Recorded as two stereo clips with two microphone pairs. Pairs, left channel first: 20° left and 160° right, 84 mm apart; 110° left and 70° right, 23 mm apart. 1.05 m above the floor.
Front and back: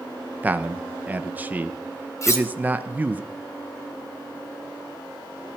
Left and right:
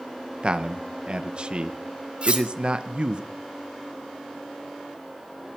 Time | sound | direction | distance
0.4 | a man speaking | 95° right | 1.0 m
2.2 | cutlery clinking | 30° right | 2.5 m